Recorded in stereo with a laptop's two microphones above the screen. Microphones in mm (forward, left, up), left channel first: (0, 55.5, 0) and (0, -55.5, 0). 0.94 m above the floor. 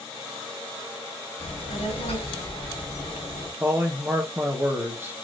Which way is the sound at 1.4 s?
80° left.